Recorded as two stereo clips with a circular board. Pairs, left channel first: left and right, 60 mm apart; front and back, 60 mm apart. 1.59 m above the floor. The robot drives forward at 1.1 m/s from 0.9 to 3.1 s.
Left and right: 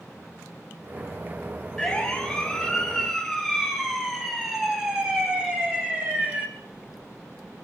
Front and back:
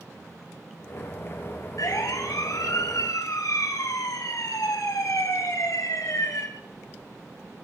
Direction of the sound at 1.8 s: 15° left.